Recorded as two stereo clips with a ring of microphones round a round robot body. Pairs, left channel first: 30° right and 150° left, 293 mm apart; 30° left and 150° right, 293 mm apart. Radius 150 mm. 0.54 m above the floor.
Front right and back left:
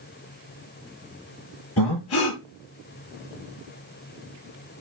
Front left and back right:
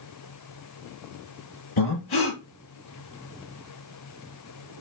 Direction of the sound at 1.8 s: 15° left.